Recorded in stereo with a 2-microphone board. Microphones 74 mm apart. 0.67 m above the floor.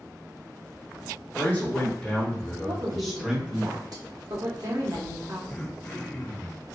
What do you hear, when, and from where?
1.4 s a man speaking: 30° left (ahead or behind), 1.7 m; by 3.7 s 20° right (ahead or behind), 1.1 m
2.7 s a woman speaking: 55° right (ahead or behind), 1.0 m
5.5 s throat clearing: 15° left (ahead or behind), 0.6 m